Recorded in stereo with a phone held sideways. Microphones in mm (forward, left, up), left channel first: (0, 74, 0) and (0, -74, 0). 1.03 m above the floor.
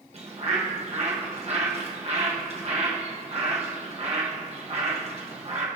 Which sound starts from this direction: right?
A bird, at 0.1 s.